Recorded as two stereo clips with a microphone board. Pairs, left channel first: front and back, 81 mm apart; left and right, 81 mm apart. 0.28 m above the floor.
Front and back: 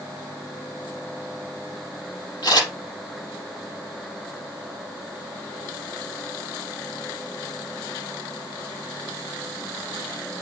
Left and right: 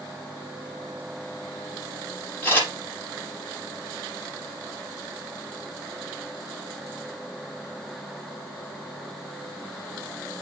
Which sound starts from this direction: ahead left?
A camera shutter, at 2.4 s.